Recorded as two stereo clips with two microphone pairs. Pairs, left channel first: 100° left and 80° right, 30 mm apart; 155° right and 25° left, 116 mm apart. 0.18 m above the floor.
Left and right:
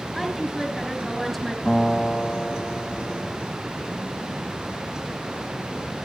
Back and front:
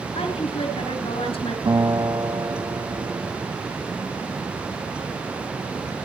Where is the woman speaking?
Straight behind, 2.5 m.